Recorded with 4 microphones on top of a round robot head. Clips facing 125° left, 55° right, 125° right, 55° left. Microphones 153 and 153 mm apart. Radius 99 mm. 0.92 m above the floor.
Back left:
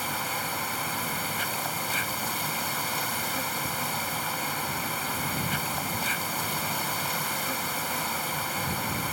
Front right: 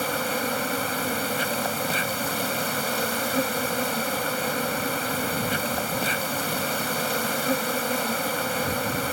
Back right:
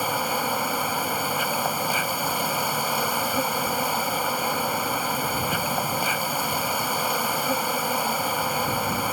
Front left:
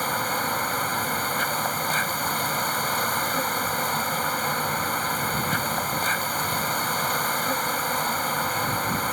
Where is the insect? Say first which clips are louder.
Front right 7 dB, back right 2 dB; 45° right.